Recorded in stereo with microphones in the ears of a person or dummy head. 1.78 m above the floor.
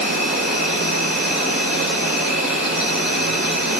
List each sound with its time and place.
0.0 s an insect: centre (ahead or behind), 2.5 m